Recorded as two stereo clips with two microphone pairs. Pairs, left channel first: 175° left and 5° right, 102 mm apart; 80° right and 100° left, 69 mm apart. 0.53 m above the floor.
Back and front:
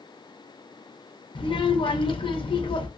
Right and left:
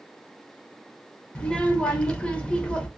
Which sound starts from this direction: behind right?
A child speaking, at 1.4 s.